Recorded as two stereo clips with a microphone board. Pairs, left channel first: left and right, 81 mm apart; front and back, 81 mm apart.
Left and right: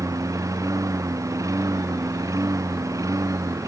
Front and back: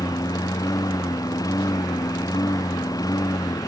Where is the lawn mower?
40° right.